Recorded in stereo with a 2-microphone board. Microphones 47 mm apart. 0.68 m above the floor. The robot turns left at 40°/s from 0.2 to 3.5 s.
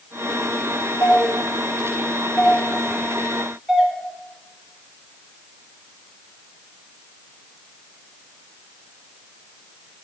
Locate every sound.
1.0 s a doorbell: 70° left (ahead or behind), 4.5 m; by 3.9 s centre (ahead or behind), 4.5 m